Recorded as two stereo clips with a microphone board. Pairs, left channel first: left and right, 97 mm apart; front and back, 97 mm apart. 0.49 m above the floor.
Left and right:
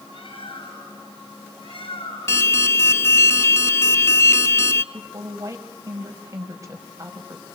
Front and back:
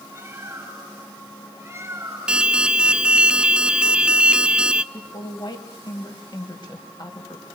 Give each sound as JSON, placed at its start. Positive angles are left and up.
{"t": 0.1, "sound": "a bird", "azimuth_deg": 115, "distance_m": 6.0}
{"t": 2.3, "sound": "an alarm", "azimuth_deg": 110, "distance_m": 0.5}
{"t": 4.9, "sound": "a woman speaking", "azimuth_deg": -35, "distance_m": 3.0}